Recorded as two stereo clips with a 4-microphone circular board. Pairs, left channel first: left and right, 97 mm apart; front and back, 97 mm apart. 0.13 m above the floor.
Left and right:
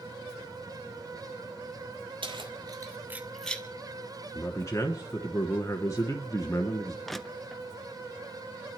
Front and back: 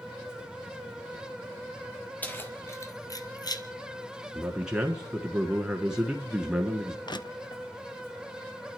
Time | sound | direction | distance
2.2 | keys jangling | 70° right | 1.9 m
4.3 | a man speaking | 105° left | 1.2 m
7.1 | crushing | straight ahead | 0.5 m